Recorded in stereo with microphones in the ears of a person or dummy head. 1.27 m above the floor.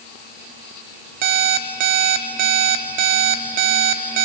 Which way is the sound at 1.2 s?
45° right (ahead or behind).